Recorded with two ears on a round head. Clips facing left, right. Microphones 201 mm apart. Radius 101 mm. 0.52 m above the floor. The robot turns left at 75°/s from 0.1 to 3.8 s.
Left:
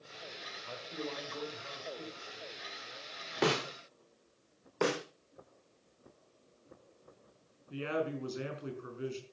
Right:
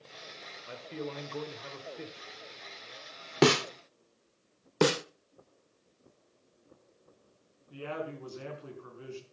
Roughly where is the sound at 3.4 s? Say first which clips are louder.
Right 7 dB; right.